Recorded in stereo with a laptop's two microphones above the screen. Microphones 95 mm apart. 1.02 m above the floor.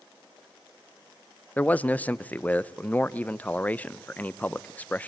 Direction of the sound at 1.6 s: 15° left (ahead or behind).